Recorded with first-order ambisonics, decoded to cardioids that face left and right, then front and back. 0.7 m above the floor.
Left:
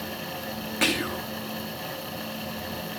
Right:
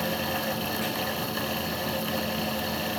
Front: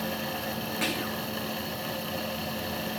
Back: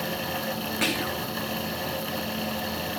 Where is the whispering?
115° left.